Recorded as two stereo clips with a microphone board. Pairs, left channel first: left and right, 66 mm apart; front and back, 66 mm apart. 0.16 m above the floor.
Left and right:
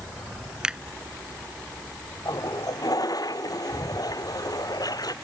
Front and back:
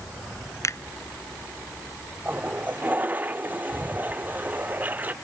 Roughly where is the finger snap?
Ahead.